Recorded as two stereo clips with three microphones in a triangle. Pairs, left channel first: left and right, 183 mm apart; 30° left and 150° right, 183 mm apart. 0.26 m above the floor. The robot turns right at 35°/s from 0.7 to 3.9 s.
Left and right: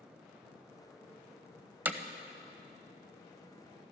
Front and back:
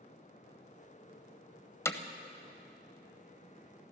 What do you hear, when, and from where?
1.9 s hammering: 25° right, 0.7 m; by 2.0 s 20° right, 0.7 m